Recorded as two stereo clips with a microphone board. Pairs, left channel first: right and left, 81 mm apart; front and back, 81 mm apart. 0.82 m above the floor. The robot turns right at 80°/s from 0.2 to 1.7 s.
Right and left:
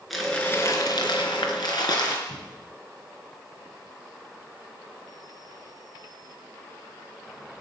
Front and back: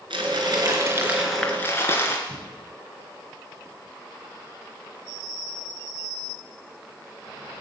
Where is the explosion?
110° right, 5 m.